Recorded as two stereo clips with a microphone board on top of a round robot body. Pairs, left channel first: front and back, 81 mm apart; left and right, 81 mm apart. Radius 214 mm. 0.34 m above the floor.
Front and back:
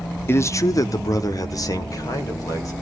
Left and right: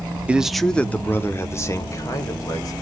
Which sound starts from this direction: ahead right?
A man speaking, at 0.3 s.